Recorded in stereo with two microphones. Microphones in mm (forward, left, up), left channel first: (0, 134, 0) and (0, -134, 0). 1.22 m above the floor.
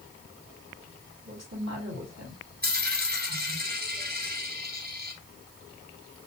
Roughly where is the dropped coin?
Right.